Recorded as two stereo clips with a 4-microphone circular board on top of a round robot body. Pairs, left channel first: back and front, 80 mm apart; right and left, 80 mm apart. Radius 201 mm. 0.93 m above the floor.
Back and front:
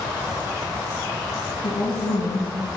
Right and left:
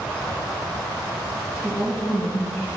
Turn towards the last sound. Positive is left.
turn(degrees=-165)